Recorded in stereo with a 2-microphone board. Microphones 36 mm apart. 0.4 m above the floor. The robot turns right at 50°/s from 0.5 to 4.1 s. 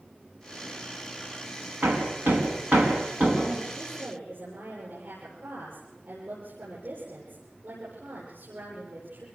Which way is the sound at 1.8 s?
70° right (ahead or behind).